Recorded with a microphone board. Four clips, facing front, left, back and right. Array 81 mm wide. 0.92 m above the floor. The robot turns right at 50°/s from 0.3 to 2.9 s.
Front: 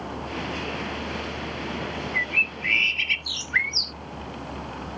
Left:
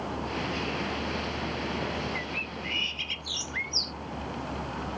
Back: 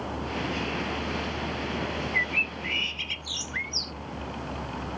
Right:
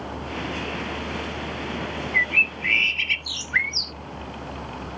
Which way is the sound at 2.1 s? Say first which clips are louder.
Right 10 dB, front 1 dB; 90° right.